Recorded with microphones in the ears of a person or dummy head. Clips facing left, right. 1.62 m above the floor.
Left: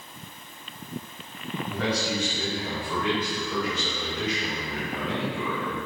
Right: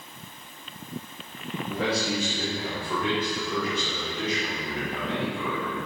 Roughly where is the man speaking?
Right.